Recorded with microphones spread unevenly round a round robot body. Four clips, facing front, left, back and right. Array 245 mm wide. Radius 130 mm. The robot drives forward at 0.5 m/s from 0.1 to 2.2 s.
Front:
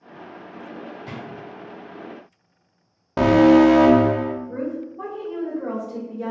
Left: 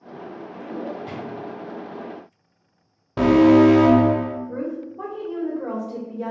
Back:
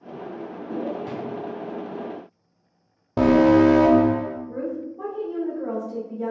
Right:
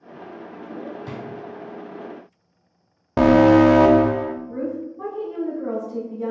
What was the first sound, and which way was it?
A drawer, 100° right.